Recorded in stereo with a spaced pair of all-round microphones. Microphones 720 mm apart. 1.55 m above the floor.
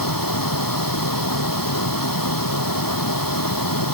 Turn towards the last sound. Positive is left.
turn(degrees=25)  # may be behind; listen again after turning